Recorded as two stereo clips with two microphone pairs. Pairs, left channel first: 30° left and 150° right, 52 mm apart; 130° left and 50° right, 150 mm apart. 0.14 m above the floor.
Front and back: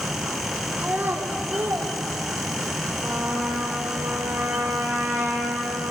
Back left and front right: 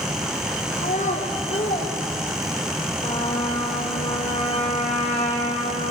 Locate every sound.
0.8 s a child speaking: 155° left, 3 m; by 2.8 s 175° right, 4 m
3.0 s a trumpet: 175° left, 3.5 m